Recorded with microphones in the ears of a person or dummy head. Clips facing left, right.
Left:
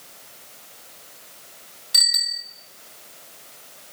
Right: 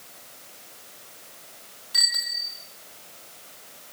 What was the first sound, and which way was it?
A bicycle bell, 35° left (ahead or behind).